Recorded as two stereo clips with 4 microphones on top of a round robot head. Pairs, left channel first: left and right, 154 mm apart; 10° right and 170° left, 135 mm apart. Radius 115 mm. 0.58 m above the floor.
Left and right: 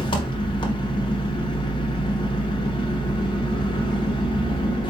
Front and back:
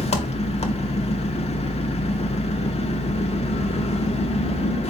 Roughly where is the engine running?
Ahead left.